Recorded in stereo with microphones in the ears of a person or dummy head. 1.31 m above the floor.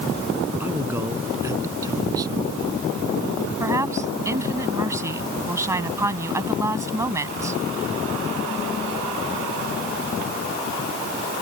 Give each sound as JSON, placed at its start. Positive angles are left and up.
{"t": 0.6, "sound": "a man speaking", "side_deg": -10}
{"t": 3.6, "sound": "a woman speaking", "side_deg": -20}